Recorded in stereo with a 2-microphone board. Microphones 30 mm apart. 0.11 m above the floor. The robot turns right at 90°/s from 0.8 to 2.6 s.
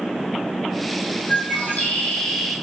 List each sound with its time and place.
1.3 s a bird: 70° left, 6 m; by 2.5 s 175° right, 6 m